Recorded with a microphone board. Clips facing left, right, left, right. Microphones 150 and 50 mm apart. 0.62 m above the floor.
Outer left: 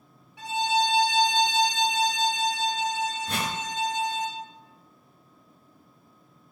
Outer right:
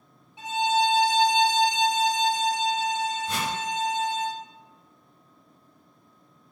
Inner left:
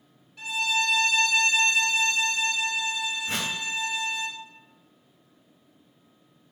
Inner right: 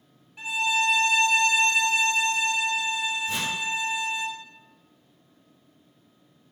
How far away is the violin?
About 0.7 m.